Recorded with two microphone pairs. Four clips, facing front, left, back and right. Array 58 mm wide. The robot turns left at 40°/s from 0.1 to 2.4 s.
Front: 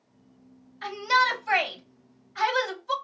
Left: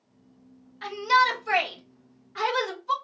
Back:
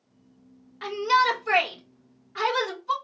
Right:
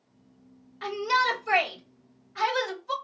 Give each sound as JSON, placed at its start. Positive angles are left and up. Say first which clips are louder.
{"t": 0.8, "sound": "a shout", "louder": "left 3 dB, back 1 dB", "azimuth_deg": -150, "distance_m": 2.5}